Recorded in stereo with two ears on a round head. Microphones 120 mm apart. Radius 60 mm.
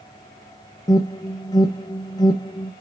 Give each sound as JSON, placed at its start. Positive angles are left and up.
{"t": 0.9, "sound": "an alarm", "side_deg": 30, "distance_m": 0.7}